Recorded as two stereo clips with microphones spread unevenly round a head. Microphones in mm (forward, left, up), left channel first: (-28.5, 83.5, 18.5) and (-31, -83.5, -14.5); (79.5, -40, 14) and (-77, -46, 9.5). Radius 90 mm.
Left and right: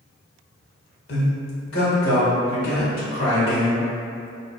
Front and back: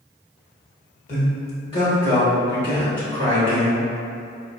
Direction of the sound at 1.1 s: 50° left.